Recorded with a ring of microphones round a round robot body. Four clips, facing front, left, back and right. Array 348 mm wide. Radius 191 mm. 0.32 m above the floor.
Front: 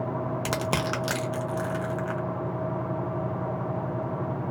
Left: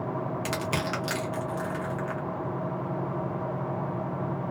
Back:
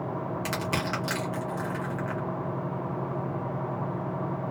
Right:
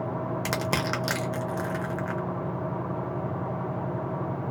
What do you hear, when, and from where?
0.5 s crushing: 40° right, 0.7 m